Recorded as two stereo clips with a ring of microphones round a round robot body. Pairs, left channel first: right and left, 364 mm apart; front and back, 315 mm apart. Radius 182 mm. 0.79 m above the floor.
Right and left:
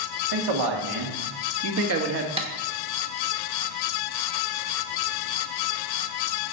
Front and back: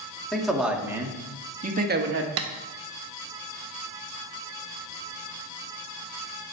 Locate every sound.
0.3 s a man speaking: 90° left, 2.0 m; by 2.3 s 145° left, 1.4 m
2.4 s tapping: 160° left, 1.2 m